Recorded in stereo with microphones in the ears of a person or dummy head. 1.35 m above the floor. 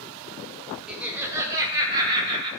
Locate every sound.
0.9 s laughter: 5° right (ahead or behind), 0.6 m; by 2.5 s 30° right (ahead or behind), 1.4 m